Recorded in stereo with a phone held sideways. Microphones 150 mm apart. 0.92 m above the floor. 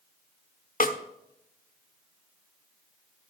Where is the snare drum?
70° left (ahead or behind), 1.1 m.